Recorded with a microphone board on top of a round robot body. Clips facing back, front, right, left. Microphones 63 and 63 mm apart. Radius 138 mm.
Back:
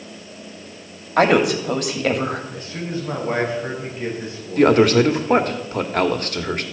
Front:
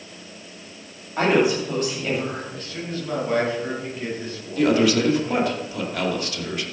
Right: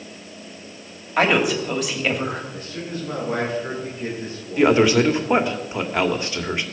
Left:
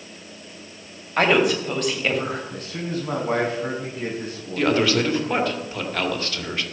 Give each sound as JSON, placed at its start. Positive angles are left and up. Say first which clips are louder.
{"t": 1.2, "sound": "a woman speaking", "louder": "back 3 dB, even", "azimuth_deg": -175, "distance_m": 2.5}
{"t": 2.5, "sound": "a man speaking", "louder": "back 3 dB, left 2 dB", "azimuth_deg": 110, "distance_m": 4.5}
{"t": 4.6, "sound": "a man speaking", "louder": "back 5 dB, right 4 dB", "azimuth_deg": -160, "distance_m": 1.9}